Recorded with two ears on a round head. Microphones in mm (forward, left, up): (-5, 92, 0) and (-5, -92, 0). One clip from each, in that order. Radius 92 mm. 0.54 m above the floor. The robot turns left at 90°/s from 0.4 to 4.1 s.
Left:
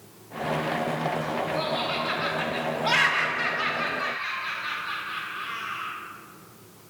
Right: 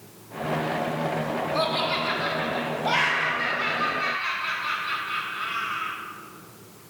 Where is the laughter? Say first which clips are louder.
Right 6 dB; 45° right (ahead or behind), 1.2 m; by 6.0 s 5° left (ahead or behind), 1.2 m.